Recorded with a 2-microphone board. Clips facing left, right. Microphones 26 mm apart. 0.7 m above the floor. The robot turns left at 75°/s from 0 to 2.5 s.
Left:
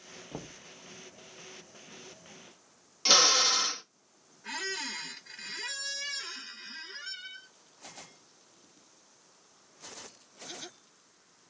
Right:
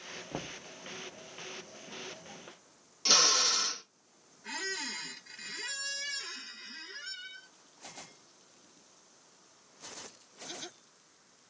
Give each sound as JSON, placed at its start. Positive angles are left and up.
{"t": 0.3, "sound": "knocking", "side_deg": -10, "distance_m": 0.5}
{"t": 3.0, "sound": "a drill", "side_deg": 25, "distance_m": 0.9}
{"t": 4.4, "sound": "a squeak", "side_deg": 5, "distance_m": 0.6}